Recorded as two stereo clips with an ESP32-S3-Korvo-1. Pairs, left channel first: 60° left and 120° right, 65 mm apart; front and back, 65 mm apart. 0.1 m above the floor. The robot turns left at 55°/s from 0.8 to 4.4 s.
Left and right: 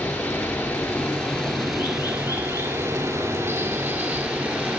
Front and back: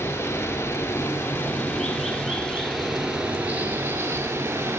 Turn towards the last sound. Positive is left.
turn(degrees=180)